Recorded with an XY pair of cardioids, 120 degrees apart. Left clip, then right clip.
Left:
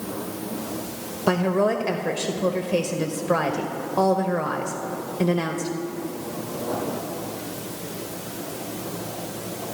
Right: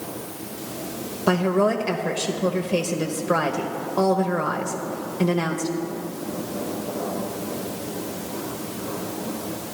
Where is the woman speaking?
5° left, 0.9 m.